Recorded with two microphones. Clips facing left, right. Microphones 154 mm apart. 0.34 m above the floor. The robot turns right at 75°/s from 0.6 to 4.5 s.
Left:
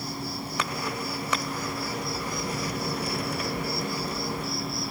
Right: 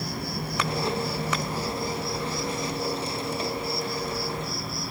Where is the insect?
110° right, 1.2 m; by 4.9 s straight behind, 1.2 m.